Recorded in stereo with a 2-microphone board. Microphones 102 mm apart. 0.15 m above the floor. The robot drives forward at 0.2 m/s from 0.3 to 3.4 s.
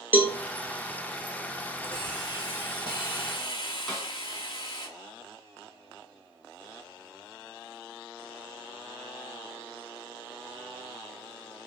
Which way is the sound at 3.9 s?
5° left (ahead or behind).